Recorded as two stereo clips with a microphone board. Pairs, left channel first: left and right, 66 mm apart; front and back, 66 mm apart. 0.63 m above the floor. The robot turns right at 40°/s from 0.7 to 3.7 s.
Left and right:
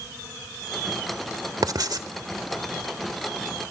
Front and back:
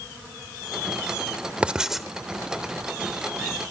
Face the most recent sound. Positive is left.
turn(degrees=-25)